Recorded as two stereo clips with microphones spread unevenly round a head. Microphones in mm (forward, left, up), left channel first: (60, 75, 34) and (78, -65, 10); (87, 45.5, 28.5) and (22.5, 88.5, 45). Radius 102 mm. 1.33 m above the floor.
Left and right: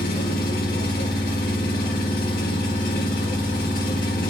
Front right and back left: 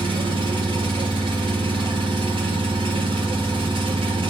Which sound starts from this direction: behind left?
An engine running, at 0.0 s.